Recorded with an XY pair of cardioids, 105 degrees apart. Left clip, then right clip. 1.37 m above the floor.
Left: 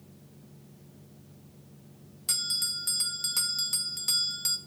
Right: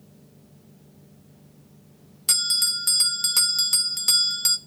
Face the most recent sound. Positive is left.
turn(degrees=-50)